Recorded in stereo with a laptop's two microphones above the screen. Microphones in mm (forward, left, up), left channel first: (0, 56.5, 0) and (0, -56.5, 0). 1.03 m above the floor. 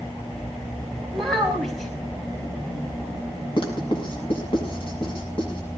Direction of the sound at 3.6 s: 45° left (ahead or behind).